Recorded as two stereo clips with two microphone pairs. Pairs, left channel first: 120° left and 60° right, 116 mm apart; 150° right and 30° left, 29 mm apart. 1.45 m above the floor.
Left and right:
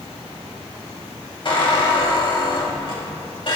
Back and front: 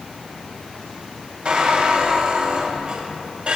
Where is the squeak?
80° left, 4.5 m.